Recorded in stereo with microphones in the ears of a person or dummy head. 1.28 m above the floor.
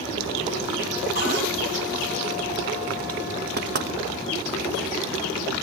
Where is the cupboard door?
60° right (ahead or behind), 8.5 m.